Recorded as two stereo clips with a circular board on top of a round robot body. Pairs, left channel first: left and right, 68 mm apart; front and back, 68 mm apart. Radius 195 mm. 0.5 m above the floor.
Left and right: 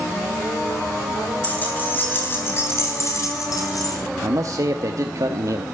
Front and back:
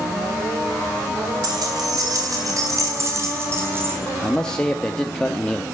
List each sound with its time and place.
1.4 s keys jangling: 160° left, 4.5 m; by 4.0 s 120° left, 4 m
4.2 s a man speaking: 75° right, 1.2 m